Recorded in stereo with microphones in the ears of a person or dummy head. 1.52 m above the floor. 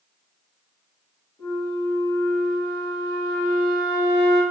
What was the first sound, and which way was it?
A flute, 10° left (ahead or behind).